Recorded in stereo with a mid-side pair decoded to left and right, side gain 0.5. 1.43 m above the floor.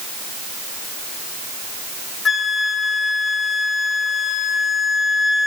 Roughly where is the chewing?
I don't hear chewing.